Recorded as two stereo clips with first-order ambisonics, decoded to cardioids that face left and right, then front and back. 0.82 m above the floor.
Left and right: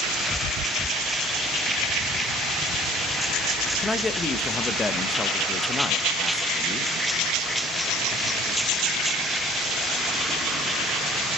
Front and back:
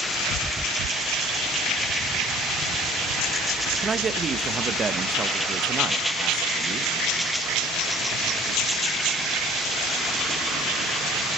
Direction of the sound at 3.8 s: 145° left.